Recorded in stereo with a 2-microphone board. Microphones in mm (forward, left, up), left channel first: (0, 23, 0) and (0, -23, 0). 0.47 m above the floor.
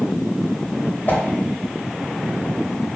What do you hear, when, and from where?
1.1 s a whoosh: 35° left (ahead or behind), 0.6 m